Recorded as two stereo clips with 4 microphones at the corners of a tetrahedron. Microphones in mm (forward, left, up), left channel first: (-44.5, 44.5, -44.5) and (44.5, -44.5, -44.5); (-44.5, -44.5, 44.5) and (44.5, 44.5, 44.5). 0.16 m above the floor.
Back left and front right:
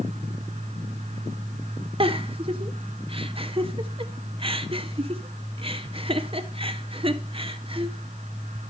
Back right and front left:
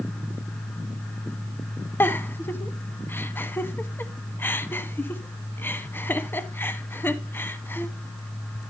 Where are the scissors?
I don't hear scissors.